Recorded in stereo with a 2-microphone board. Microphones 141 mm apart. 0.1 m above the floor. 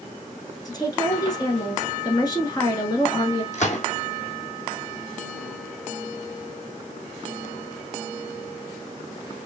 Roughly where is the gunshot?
Left.